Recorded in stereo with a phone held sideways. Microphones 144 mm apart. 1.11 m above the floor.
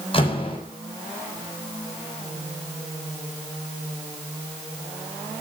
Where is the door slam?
40° left (ahead or behind), 6.5 m.